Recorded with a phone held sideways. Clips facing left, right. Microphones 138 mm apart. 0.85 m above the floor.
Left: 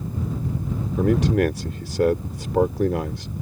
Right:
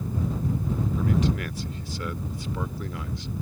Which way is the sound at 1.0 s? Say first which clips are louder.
Left 9 dB; 80° left.